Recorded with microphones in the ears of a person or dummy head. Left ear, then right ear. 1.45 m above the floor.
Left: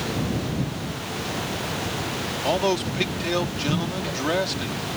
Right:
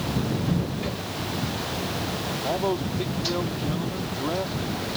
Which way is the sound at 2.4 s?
70° left (ahead or behind).